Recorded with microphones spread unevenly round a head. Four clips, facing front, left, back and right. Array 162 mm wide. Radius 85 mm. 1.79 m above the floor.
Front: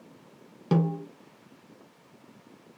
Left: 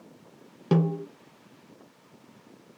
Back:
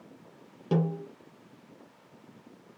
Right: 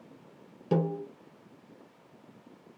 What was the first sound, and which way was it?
A snare drum, 70° left.